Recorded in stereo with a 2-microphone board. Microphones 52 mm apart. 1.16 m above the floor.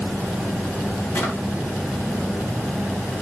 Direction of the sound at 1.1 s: 55° left (ahead or behind).